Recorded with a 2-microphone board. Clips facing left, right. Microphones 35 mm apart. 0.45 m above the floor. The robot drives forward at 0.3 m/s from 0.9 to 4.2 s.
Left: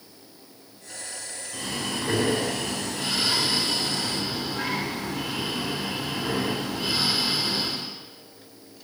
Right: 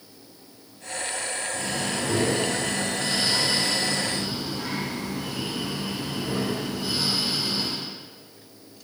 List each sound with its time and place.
1.5 s breathing: 50° left (ahead or behind), 1.0 m; by 7.9 s 80° left, 0.8 m